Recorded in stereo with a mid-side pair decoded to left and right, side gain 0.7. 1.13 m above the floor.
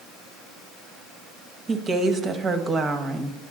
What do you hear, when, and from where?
1.7 s a woman speaking: 30° right, 1.2 m